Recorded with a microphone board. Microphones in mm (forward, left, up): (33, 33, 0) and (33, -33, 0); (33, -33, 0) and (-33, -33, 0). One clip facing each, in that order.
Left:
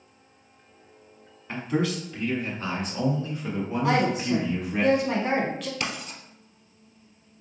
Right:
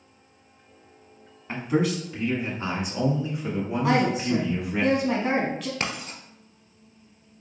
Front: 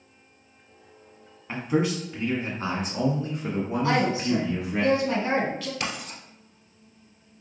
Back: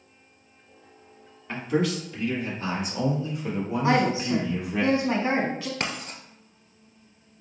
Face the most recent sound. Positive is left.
turn(degrees=-135)